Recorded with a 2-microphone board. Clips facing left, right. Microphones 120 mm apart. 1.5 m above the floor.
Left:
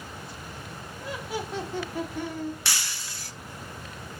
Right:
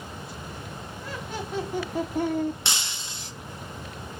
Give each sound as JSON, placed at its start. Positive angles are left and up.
{"t": 1.0, "sound": "laughter", "side_deg": 20, "distance_m": 1.6}
{"t": 2.6, "sound": "breaking glass", "side_deg": -20, "distance_m": 0.6}